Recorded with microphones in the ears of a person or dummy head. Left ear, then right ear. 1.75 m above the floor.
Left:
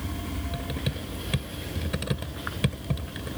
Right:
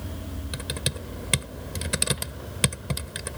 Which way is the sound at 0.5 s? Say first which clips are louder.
Right 6 dB; 80° right.